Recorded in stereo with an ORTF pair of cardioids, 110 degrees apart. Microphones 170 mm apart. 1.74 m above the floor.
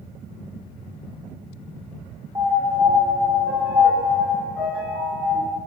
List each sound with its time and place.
2.4 s a piano: 15° right, 1.5 m